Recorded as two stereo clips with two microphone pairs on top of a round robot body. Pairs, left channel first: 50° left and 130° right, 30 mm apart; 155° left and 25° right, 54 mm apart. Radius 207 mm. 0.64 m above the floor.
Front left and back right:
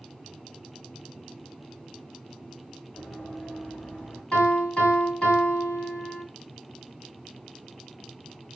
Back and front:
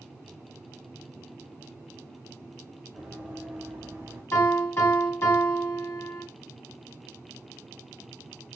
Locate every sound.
3.0 s running footsteps: 55° left, 1.6 m; by 4.2 s 20° left, 2.5 m
4.3 s a piano: 110° left, 2 m